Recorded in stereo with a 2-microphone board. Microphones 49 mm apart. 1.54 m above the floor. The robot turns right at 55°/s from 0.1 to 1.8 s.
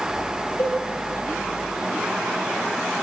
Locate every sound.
0.6 s a cowbell: 75° left (ahead or behind), 3 m